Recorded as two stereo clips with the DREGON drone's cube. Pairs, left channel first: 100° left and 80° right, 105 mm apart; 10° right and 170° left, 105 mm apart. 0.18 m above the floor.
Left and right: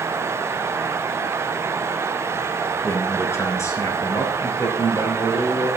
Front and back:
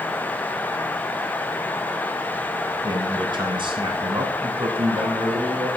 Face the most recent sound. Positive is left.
turn(degrees=150)